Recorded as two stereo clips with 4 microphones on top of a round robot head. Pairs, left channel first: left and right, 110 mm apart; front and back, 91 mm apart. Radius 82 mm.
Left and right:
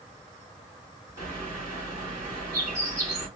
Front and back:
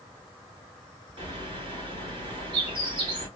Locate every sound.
1.2 s a bird: 150° right, 1.8 m